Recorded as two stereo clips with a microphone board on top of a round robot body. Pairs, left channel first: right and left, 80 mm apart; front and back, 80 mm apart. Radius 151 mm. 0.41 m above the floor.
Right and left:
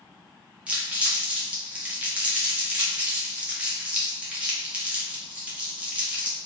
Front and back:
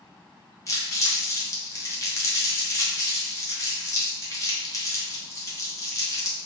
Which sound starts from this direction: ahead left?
Crumpling, at 0.7 s.